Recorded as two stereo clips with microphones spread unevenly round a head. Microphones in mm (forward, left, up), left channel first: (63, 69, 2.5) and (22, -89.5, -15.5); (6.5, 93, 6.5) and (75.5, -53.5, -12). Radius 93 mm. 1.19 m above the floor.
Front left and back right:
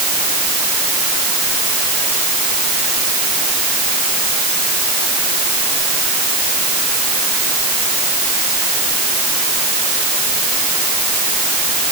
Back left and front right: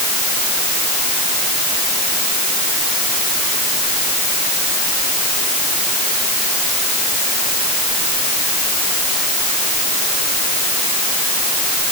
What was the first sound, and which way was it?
Only background noise.